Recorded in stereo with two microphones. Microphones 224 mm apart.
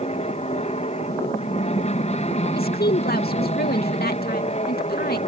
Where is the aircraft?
30° left (ahead or behind).